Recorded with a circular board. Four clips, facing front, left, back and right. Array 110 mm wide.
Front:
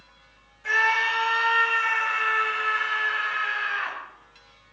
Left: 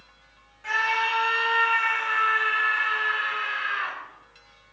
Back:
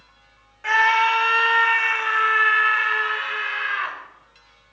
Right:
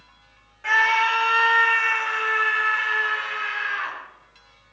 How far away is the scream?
About 2.5 m.